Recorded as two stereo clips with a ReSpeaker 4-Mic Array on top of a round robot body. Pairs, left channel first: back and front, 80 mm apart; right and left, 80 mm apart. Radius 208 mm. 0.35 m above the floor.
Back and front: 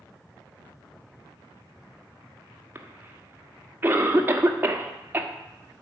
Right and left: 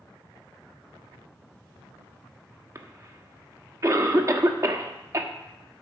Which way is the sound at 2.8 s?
55° left.